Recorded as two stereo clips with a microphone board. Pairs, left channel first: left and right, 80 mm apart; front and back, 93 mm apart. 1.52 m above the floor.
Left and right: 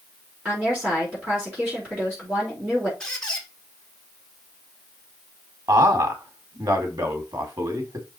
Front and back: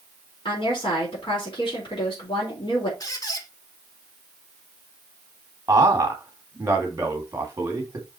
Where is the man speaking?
125° right, 2.5 m.